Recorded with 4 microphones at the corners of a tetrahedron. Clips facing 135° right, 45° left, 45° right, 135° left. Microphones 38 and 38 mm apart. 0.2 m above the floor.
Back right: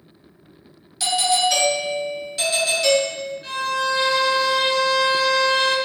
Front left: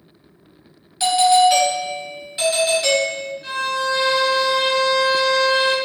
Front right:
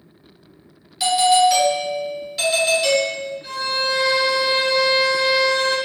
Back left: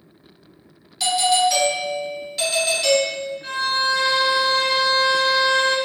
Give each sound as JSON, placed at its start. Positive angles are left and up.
{"t": 1.0, "sound": "a doorbell", "azimuth_deg": 35, "distance_m": 1.4}
{"t": 3.4, "sound": "a violin", "azimuth_deg": 130, "distance_m": 1.5}